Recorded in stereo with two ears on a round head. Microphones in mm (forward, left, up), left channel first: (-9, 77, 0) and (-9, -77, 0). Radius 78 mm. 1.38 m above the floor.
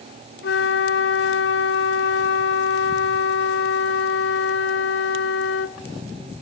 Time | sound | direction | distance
0.4 | a flute | 70° left (ahead or behind) | 0.7 m